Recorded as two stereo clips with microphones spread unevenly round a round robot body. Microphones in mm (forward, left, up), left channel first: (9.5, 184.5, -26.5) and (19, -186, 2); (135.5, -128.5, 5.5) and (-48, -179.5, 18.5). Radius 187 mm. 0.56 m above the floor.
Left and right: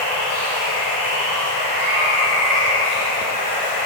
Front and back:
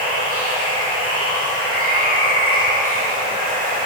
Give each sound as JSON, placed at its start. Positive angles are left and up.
{"t": 0.0, "sound": "running water", "azimuth_deg": -120, "distance_m": 1.0}